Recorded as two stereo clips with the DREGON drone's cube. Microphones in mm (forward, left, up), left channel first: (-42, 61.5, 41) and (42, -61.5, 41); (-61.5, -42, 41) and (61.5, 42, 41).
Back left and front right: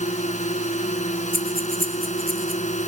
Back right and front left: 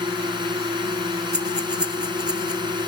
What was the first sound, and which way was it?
A drone, 90° left.